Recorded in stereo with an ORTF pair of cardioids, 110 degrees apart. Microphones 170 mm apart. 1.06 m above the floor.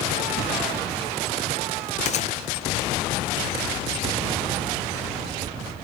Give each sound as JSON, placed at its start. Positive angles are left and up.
{"t": 2.0, "sound": "a gunshot", "azimuth_deg": 45, "distance_m": 0.6}